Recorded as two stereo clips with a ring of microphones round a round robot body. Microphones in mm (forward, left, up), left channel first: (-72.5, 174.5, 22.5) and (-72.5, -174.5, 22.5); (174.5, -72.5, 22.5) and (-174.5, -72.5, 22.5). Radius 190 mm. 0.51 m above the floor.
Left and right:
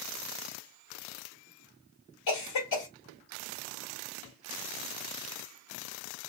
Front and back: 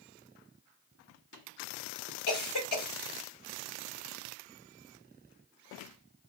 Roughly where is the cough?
Ahead left.